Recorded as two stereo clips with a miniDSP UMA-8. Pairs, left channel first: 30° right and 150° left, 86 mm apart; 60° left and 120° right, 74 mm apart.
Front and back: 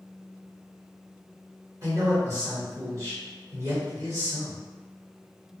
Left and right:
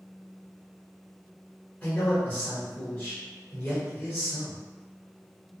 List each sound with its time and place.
1.8 s a man speaking: 115° left, 1.5 m